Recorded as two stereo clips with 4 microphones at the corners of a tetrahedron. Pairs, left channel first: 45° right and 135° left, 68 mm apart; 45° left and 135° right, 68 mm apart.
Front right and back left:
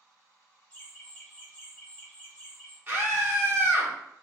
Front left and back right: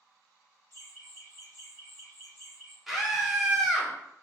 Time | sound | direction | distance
0.7 | laughter | 115° right | 1.7 m
2.9 | a scream | 140° left | 1.1 m